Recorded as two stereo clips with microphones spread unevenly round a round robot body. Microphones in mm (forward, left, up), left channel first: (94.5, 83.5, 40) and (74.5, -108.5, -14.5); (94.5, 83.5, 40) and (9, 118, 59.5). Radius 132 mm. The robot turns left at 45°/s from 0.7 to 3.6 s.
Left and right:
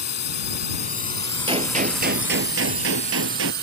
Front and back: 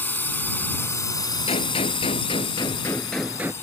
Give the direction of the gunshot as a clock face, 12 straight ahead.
1 o'clock.